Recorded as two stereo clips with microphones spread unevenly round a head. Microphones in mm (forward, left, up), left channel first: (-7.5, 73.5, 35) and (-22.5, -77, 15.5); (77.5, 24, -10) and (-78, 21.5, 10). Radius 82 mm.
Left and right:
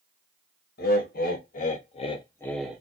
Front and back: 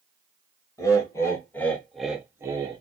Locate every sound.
0.8 s laughter: 65° left, 1.1 m; by 2.8 s 145° right, 0.5 m